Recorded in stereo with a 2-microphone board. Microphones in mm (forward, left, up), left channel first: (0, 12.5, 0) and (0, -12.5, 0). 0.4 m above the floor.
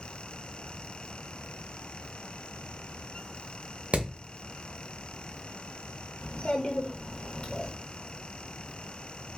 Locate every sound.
3.9 s hammering: 55° right (ahead or behind), 0.7 m
6.2 s a child speaking: 35° left (ahead or behind), 0.7 m